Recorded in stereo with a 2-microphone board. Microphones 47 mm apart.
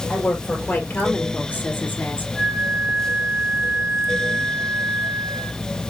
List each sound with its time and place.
0.1 s a woman speaking: 30° left (ahead or behind), 5 m
2.4 s a flute: 10° left (ahead or behind), 3 m